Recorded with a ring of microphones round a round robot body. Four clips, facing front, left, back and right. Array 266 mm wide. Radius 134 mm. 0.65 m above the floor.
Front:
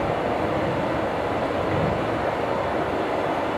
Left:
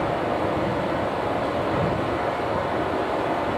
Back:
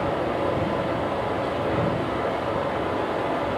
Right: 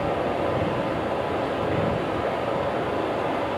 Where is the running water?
65° left, 1.7 m.